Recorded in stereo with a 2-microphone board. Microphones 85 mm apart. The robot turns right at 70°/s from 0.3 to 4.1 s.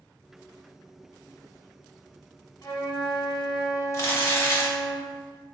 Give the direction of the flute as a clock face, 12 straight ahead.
10 o'clock.